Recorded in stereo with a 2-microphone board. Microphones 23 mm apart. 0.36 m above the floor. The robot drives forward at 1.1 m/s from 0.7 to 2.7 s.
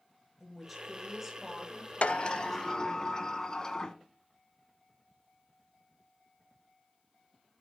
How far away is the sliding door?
About 0.5 m.